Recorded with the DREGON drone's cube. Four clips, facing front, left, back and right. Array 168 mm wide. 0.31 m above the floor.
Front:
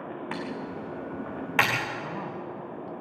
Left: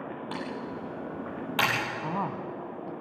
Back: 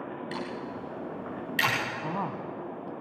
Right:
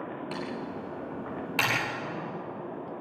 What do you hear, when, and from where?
0.3 s typing on a keyboard: 20° left, 6 m
2.0 s a woman speaking: 120° left, 1.9 m